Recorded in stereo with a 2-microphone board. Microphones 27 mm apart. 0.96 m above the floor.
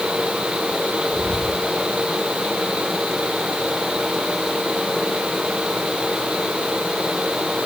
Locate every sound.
1.1 s whispering: 40° left (ahead or behind), 3 m